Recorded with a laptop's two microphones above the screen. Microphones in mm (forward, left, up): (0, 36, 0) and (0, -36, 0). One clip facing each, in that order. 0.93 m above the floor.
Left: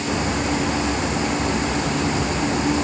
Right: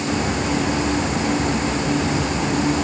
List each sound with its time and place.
Only background noise.